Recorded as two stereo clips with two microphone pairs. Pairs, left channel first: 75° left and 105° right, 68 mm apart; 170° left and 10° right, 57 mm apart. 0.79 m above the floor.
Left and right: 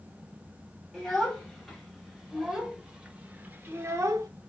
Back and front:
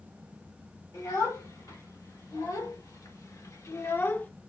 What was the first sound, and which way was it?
A child speaking, 160° left.